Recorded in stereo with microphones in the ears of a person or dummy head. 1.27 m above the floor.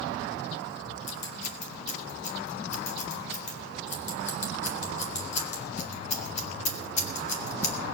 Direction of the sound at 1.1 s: 40° left (ahead or behind).